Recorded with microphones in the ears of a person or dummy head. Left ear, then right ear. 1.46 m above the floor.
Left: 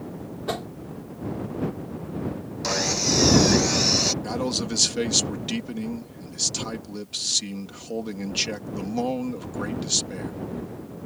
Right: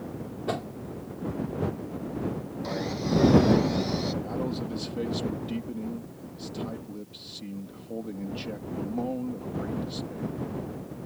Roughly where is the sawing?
Left.